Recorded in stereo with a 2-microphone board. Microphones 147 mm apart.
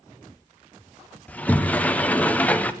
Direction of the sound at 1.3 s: 10° left (ahead or behind).